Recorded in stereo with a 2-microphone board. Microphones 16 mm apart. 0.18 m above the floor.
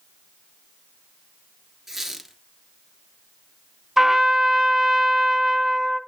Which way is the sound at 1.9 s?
15° right (ahead or behind).